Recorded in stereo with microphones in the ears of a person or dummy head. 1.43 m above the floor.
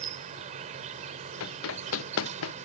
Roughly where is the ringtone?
I don't hear a ringtone.